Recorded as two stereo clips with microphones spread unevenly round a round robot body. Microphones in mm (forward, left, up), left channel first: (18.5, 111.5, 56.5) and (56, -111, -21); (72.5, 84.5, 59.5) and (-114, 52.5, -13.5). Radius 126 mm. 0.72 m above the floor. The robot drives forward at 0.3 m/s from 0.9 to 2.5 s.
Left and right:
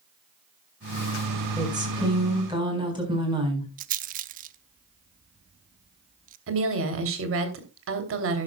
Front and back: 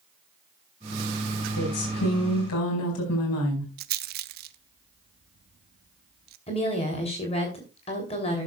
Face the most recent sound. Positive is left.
turn(degrees=-60)